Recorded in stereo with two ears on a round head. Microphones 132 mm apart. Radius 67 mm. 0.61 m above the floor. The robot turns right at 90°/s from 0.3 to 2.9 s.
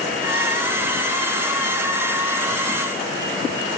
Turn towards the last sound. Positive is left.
No sound to turn to.